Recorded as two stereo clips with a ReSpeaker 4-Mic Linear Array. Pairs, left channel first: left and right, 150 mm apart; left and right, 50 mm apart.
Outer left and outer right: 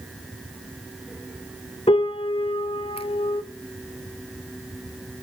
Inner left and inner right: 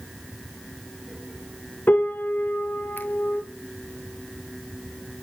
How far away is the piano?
About 0.6 m.